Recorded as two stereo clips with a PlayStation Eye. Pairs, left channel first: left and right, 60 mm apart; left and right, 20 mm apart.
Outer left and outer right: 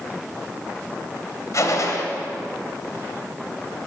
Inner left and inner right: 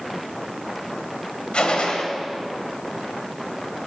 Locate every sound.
1.5 s a gunshot: 65° left (ahead or behind), 1.4 m